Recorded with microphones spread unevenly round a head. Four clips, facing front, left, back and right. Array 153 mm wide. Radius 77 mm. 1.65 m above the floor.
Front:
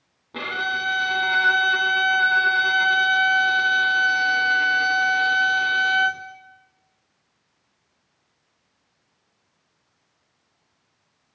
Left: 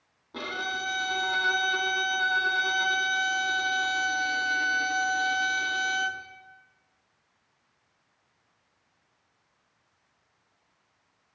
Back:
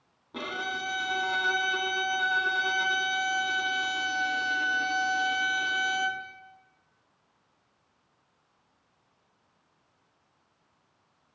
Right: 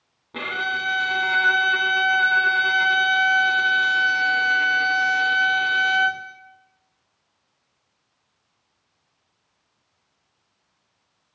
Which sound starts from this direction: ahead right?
A violin, at 0.3 s.